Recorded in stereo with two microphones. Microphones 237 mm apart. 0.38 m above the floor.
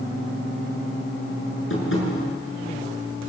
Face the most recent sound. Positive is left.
turn(degrees=60)  # may be behind; listen again after turning